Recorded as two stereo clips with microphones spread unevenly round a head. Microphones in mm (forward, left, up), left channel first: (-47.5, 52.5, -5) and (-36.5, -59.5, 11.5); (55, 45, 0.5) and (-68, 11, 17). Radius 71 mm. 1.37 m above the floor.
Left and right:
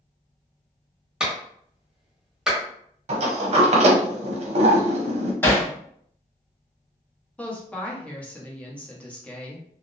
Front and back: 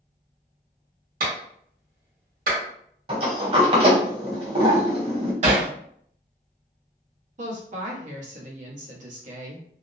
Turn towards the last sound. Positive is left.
turn(degrees=175)